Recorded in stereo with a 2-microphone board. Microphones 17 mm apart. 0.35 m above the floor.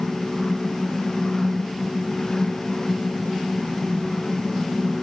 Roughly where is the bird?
No bird in this recording.